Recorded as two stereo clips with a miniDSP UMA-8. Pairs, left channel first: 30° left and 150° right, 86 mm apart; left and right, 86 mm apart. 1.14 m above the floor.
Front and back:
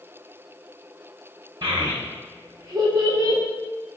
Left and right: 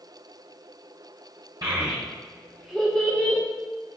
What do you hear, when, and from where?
1.6 s a child speaking: 130° right, 0.6 m; by 3.4 s 150° left, 0.8 m